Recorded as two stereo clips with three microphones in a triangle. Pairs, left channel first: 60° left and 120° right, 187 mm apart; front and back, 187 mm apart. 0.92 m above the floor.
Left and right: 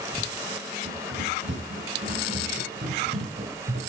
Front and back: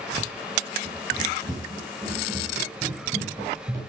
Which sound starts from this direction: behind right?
Running footsteps, at 0.8 s.